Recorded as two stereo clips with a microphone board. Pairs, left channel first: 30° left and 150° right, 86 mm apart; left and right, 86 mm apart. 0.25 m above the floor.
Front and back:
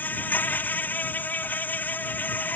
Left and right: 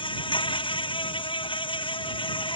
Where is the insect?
100° left.